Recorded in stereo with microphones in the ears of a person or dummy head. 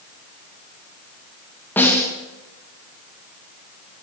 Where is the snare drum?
10° left (ahead or behind), 2 m.